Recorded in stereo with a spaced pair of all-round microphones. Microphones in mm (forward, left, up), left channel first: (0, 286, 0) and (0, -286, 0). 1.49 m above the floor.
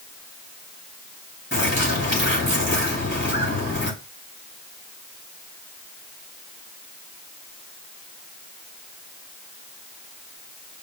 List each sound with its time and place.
1.5 s a bird: 20° left (ahead or behind), 3 m